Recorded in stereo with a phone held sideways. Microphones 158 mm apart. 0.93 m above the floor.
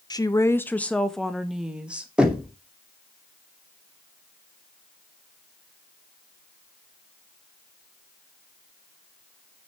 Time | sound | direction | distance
0.1 | a woman speaking | 25° left (ahead or behind) | 0.8 m
2.2 | knocking | 5° right (ahead or behind) | 2.5 m